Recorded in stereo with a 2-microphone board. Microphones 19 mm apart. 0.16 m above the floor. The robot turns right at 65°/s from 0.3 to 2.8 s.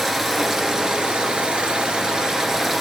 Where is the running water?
165° right, 0.9 m; by 2.8 s 5° right, 0.9 m.